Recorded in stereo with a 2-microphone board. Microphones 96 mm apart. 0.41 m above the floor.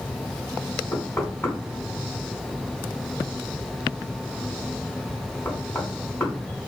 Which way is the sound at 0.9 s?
25° left (ahead or behind).